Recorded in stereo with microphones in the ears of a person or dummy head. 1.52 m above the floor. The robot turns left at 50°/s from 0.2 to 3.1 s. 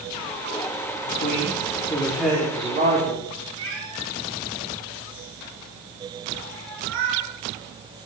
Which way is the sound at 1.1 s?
55° left.